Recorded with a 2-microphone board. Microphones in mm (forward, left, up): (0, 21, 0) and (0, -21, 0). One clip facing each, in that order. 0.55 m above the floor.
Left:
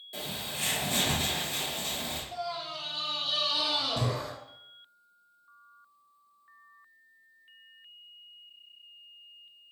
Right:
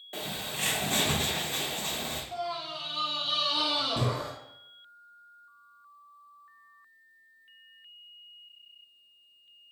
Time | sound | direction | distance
0.1 | a bird | 50° right (ahead or behind) | 0.8 m
2.3 | a scream | 25° right (ahead or behind) | 0.6 m